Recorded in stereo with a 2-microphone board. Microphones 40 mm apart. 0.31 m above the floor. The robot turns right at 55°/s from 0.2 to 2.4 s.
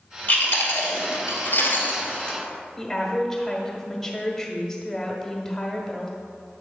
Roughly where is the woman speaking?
Centre.